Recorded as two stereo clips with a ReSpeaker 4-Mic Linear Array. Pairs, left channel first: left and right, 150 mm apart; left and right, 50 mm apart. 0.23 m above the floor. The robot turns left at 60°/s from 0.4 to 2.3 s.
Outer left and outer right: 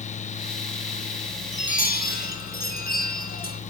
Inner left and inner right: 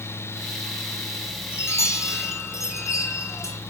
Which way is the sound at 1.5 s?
130° left.